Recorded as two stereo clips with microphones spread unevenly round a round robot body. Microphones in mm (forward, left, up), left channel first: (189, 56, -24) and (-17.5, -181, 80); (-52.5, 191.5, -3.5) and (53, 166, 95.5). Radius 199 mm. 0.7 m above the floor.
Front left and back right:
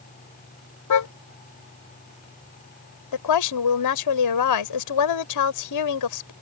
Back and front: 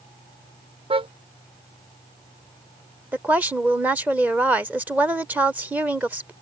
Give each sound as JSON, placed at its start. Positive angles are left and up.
{"t": 0.9, "sound": "a car horn", "azimuth_deg": 20}
{"t": 3.1, "sound": "a woman speaking", "azimuth_deg": 75}